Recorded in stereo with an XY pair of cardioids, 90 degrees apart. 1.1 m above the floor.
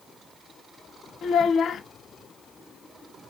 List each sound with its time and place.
1.2 s a child speaking: 70° left, 0.8 m